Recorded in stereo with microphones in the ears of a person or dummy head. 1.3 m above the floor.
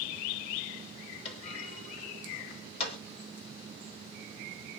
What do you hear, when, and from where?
1.2 s a clunk: 30° left (ahead or behind), 1.7 m